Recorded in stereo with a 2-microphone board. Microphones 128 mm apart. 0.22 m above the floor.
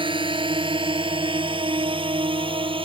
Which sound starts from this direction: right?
A drone, at 0.0 s.